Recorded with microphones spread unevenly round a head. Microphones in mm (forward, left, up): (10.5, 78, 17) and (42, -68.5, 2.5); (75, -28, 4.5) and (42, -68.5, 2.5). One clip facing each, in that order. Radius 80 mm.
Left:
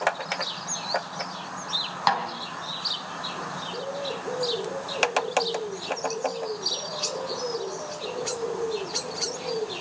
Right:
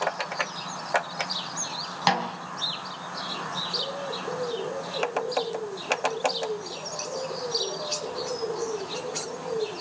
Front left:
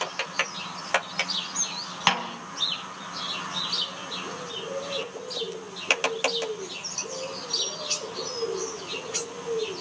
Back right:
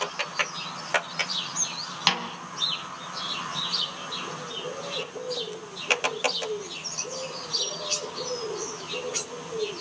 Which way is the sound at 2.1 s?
15° right.